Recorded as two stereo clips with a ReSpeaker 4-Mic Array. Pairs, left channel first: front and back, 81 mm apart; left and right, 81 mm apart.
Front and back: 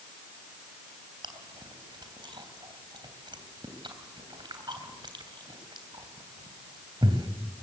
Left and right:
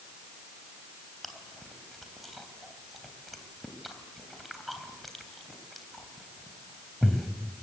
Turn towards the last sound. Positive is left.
turn(degrees=180)